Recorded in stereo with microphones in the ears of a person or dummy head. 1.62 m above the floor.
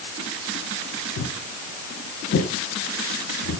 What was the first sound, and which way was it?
Footsteps, 70° left (ahead or behind).